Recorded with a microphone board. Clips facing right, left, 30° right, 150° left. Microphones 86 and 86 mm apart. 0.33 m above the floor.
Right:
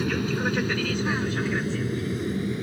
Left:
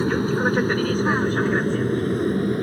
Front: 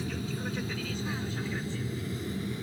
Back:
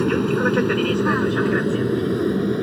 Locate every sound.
0.0 s an aircraft: 145° left; by 2.6 s 125° left